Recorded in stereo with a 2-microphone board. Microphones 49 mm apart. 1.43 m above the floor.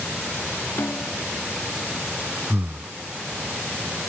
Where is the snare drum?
60° left (ahead or behind).